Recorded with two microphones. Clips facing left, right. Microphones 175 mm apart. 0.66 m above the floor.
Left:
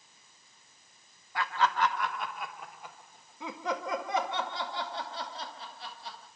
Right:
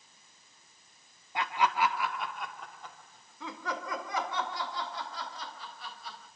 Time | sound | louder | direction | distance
1.4 | laughter | even | 20° right (ahead or behind) | 1.2 m